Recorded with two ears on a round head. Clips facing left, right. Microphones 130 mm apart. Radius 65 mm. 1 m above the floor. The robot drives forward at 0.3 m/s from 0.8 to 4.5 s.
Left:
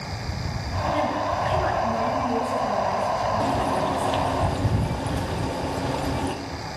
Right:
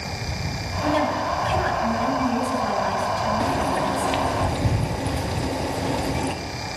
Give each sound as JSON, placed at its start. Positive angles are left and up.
{"t": 0.8, "sound": "a woman speaking", "side_deg": -85, "distance_m": 5.0}
{"t": 3.4, "sound": "frying", "side_deg": -10, "distance_m": 1.7}